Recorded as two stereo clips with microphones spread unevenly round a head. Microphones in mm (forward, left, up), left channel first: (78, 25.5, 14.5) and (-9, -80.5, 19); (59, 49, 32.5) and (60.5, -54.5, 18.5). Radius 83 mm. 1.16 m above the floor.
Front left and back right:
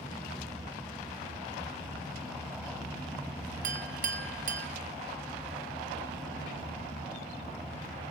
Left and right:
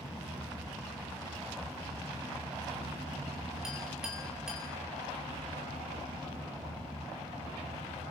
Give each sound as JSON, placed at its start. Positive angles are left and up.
{"t": 3.6, "sound": "a clink", "azimuth_deg": -175, "distance_m": 1.3}